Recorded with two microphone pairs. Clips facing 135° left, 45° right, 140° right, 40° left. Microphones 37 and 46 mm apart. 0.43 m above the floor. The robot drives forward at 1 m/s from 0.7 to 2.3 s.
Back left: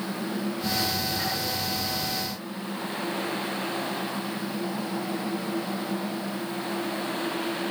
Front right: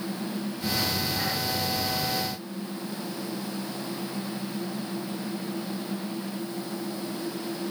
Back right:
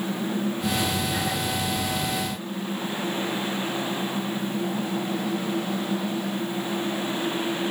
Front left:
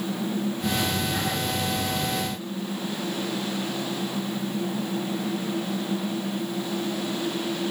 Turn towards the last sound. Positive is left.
No sound to turn to.